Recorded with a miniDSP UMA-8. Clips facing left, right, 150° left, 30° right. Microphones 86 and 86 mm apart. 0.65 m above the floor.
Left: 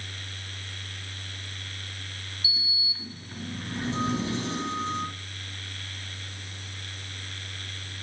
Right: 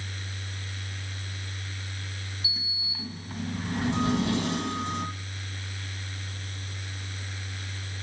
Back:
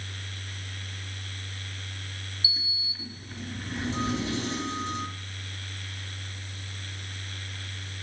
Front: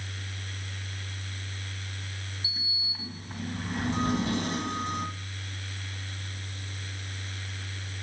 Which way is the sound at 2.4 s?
65° right.